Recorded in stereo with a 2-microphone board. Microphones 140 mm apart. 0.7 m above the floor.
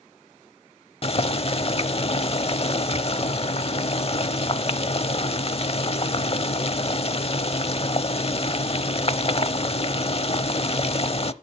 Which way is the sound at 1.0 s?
45° left (ahead or behind).